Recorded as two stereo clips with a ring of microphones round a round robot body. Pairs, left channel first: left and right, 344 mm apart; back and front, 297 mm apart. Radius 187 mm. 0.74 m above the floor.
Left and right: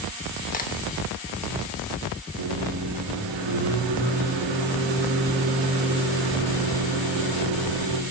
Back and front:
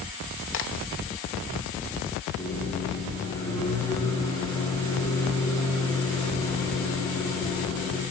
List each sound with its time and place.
0.5 s a crack: 150° left, 0.9 m
2.4 s a microwave: 100° right, 1.0 m